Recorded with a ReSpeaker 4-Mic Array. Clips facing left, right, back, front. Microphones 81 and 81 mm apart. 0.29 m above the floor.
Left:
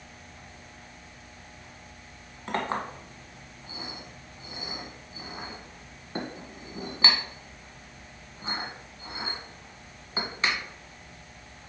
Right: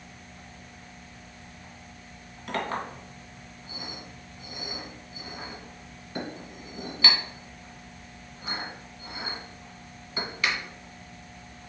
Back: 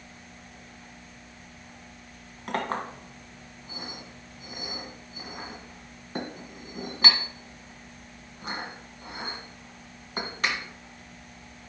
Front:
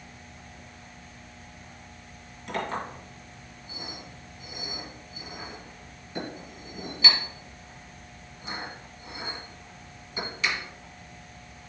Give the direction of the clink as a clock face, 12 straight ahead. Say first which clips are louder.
Left 1 dB, back 2 dB; 7 o'clock.